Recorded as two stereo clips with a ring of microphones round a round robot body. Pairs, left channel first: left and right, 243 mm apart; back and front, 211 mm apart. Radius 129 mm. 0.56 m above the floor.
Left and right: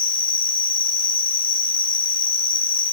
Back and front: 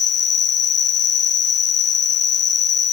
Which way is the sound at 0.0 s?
145° left.